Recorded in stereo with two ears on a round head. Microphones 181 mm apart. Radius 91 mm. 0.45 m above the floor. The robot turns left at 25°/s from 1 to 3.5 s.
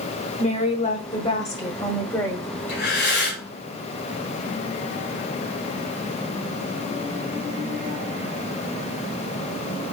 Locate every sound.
0.4 s a woman speaking: 50° left, 1.0 m; by 2.5 s 15° left, 1.0 m
2.7 s breathing: 55° left (ahead or behind), 1.8 m